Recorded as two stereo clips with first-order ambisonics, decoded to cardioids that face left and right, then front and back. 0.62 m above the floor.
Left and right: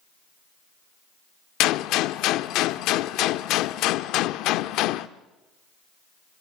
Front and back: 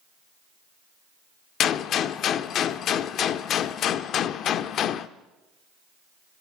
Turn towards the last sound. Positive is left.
turn(degrees=55)